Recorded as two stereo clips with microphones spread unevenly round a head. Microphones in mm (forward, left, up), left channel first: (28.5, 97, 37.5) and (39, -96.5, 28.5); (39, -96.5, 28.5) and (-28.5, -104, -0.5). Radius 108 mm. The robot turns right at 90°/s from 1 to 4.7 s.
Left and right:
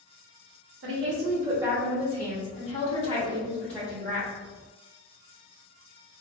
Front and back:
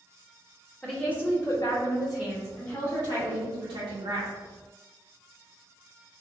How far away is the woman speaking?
About 1.3 m.